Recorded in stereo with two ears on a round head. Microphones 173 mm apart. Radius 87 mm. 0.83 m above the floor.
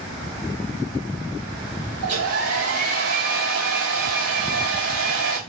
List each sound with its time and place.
2.0 s a hair dryer: 70° right (ahead or behind), 1.9 m